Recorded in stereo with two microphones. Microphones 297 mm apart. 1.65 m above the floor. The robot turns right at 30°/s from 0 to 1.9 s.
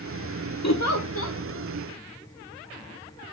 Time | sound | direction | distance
0.6 | a giggle | 60° left (ahead or behind) | 1.2 m